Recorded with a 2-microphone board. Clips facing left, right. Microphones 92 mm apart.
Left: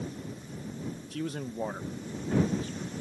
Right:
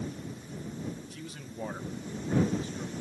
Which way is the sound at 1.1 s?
70° left (ahead or behind).